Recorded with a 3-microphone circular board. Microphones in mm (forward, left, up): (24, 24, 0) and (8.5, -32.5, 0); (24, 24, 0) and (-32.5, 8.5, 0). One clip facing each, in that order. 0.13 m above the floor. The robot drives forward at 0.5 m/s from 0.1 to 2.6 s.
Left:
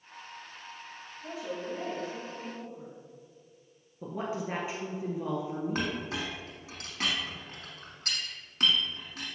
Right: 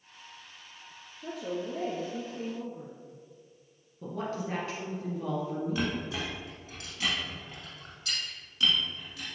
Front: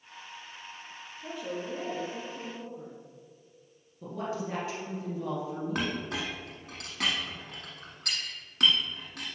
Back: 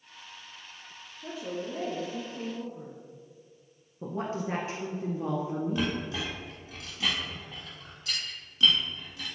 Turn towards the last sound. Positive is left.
turn(degrees=35)